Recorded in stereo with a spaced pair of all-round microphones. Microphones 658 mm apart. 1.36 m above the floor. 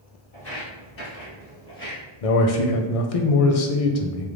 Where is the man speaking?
60° left (ahead or behind), 0.6 m.